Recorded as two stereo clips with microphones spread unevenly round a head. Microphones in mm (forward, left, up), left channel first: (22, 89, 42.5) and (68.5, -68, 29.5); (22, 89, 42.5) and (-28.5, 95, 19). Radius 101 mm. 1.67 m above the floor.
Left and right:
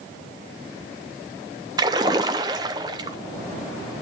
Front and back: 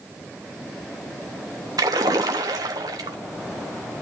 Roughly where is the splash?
Behind right.